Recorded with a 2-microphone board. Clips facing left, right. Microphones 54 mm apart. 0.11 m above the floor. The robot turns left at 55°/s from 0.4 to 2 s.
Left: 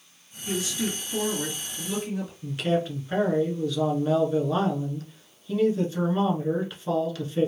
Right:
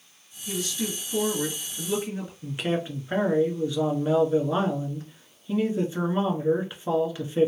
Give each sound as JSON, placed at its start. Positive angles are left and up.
{"t": 0.5, "sound": "a woman speaking", "azimuth_deg": 45, "distance_m": 1.8}
{"t": 2.4, "sound": "a man speaking", "side_deg": -20, "distance_m": 1.1}